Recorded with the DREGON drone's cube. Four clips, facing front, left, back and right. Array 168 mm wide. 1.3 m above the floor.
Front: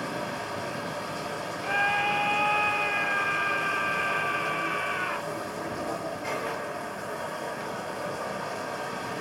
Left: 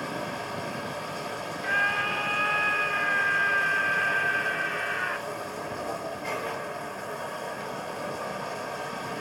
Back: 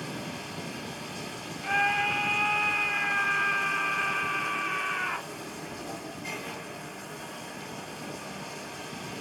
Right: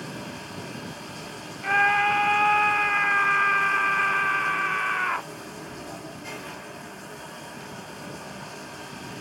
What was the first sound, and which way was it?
Running water, 30° left.